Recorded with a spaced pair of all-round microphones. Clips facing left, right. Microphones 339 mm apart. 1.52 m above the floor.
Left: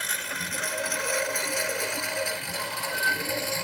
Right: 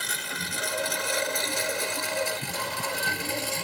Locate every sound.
0.0 s a lawn mower: 55° right (ahead or behind); by 3.6 s 45° right (ahead or behind)